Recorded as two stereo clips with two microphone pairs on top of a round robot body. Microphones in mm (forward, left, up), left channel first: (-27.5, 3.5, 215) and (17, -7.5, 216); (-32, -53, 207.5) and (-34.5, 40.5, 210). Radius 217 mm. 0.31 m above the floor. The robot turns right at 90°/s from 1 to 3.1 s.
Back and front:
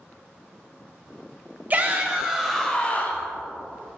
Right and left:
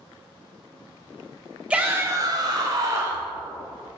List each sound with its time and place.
1.7 s a shout: 20° left, 1.4 m; by 3.3 s 145° left, 1.4 m